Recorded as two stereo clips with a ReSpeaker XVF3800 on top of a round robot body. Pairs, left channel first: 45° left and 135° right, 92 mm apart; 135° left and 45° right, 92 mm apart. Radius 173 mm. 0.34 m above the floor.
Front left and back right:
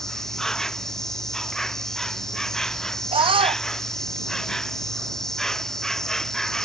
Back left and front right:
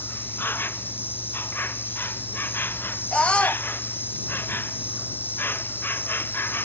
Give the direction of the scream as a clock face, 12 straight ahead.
5 o'clock.